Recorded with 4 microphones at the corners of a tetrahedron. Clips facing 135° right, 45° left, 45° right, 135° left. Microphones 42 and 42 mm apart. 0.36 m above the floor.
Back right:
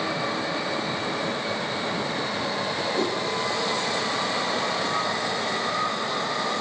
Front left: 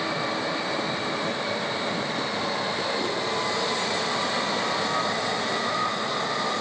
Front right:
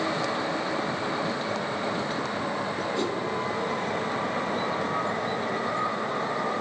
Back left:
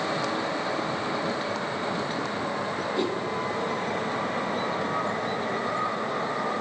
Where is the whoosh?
150° right, 0.8 m.